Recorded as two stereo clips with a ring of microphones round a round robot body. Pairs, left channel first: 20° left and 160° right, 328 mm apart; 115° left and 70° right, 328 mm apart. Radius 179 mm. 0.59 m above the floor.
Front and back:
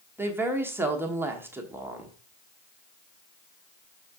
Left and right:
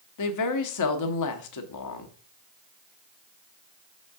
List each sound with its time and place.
0.2 s a woman speaking: 120° left, 1.3 m